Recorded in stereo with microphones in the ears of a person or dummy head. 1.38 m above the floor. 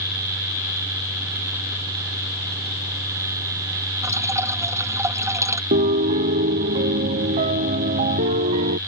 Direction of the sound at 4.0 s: 15° right (ahead or behind).